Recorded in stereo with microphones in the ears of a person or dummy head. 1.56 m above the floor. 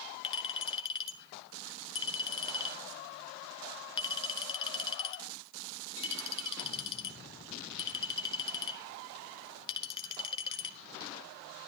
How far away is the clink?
About 1.0 m.